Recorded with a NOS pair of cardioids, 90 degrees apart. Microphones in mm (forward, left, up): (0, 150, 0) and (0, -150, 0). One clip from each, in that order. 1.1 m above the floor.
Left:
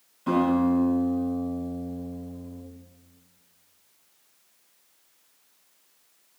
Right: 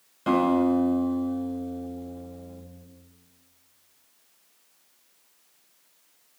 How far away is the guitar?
About 5 m.